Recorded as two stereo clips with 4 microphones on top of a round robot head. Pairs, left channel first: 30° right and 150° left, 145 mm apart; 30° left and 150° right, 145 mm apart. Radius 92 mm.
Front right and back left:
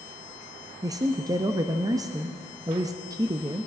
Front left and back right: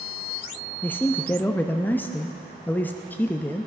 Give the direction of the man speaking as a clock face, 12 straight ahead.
9 o'clock.